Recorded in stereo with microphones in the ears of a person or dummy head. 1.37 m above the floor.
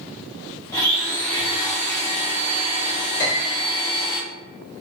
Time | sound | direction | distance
0.7 | a blender | 15° left (ahead or behind) | 0.8 m
3.2 | a piano | 65° left (ahead or behind) | 1.0 m